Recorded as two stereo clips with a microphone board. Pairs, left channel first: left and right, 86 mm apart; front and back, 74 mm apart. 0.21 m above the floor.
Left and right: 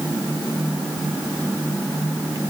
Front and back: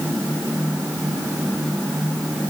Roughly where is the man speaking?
No man speaking in this recording.